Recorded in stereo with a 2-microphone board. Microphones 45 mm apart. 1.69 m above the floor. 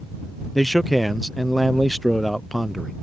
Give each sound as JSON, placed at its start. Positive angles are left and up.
{"t": 0.6, "sound": "a man speaking", "side_deg": 0}